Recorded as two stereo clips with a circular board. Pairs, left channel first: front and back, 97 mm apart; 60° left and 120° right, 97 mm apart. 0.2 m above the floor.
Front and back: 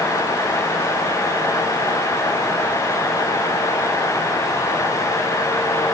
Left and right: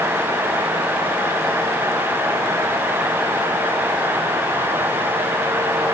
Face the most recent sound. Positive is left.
No sound to turn to.